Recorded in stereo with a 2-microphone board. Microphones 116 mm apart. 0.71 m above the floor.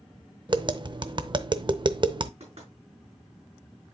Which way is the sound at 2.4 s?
65° right (ahead or behind).